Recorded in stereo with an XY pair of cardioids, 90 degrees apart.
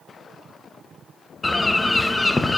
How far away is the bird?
About 0.6 m.